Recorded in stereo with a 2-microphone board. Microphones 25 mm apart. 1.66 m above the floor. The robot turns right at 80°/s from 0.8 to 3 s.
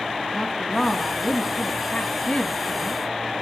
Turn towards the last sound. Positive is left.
turn(degrees=-170)